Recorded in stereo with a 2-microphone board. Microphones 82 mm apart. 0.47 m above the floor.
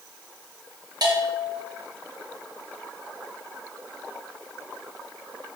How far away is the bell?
About 4 m.